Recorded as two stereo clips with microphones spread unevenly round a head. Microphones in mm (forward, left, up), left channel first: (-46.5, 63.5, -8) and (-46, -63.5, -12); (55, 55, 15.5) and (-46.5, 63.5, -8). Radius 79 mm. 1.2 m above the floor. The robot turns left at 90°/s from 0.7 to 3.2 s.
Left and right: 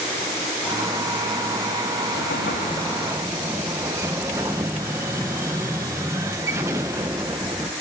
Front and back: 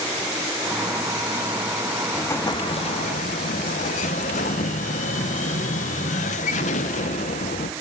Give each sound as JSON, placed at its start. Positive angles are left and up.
{"t": 2.1, "sound": "an explosion", "azimuth_deg": 80, "distance_m": 0.6}